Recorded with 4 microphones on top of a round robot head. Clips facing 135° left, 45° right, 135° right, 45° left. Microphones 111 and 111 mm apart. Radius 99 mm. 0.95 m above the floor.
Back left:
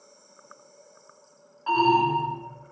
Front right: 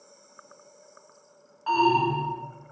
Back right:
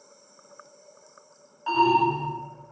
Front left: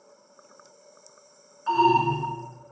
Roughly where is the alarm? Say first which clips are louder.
Back left 1 dB, even; behind right.